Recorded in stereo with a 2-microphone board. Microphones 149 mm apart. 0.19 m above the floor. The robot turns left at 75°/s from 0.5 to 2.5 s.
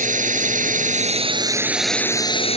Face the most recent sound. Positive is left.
turn(degrees=130)